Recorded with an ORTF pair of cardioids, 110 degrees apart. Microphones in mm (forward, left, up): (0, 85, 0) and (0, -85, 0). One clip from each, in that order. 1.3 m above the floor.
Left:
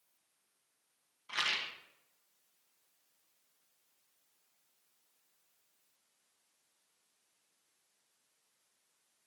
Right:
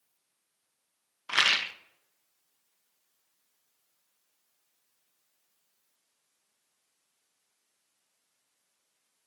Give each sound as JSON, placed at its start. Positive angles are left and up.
{"t": 1.3, "sound": "a rattle", "azimuth_deg": -55, "distance_m": 0.8}